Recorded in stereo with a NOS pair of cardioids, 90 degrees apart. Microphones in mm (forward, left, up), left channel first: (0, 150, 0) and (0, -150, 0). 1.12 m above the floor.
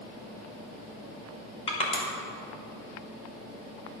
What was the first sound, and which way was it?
Crushing, 20° left.